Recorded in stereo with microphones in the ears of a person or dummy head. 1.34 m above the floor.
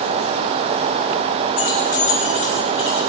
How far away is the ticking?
I don't hear ticking.